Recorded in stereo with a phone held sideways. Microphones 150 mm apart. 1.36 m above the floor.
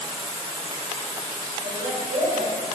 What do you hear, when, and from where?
0.0 s running water: 35° right (ahead or behind), 1.1 m
1.6 s a woman speaking: 70° right (ahead or behind), 1.9 m